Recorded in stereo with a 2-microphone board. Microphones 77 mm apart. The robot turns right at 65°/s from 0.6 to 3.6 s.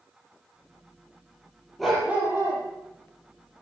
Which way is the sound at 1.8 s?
Straight behind.